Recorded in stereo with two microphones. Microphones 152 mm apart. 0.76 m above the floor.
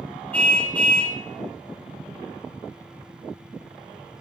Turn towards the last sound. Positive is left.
turn(degrees=10)  # may be behind; listen again after turning